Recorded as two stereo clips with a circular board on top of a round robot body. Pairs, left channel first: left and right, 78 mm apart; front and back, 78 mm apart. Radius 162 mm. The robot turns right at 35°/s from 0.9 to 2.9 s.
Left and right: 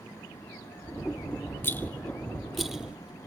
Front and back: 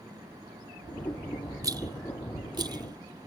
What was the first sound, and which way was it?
A rattle, 145° left.